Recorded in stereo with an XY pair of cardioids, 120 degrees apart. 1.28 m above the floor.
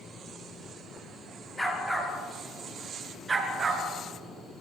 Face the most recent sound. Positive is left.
turn(degrees=-35)